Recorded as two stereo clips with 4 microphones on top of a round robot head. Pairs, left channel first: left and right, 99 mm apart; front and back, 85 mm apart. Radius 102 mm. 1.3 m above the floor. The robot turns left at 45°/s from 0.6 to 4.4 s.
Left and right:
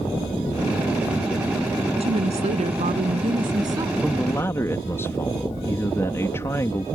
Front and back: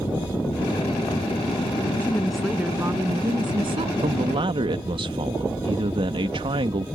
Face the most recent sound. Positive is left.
turn(degrees=160)